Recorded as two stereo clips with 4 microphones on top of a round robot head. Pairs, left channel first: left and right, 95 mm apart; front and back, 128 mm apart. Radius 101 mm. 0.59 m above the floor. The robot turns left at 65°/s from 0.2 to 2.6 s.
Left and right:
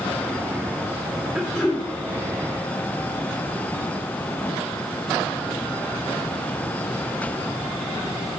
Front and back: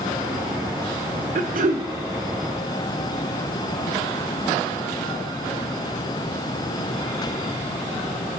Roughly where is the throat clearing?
Behind.